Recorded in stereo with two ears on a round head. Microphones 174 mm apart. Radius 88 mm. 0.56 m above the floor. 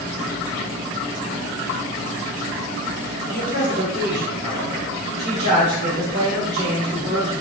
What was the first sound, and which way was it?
A man speaking, 35° right (ahead or behind).